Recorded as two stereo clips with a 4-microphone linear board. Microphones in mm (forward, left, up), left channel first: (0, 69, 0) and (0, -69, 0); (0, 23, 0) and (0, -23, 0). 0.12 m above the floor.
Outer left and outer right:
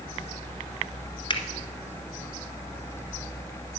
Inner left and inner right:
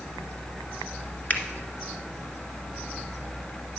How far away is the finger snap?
About 1.6 m.